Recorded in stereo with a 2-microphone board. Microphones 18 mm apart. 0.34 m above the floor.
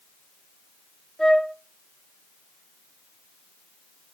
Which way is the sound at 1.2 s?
35° left (ahead or behind).